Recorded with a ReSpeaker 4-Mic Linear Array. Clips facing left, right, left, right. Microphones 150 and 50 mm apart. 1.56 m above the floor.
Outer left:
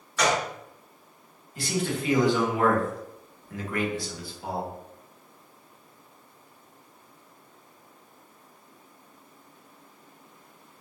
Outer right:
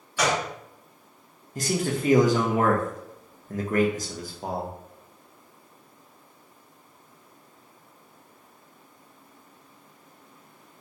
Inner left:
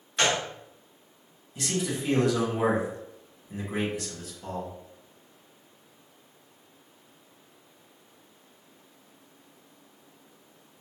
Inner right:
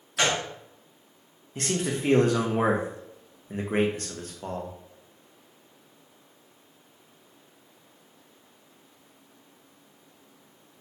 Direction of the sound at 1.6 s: 45° right (ahead or behind).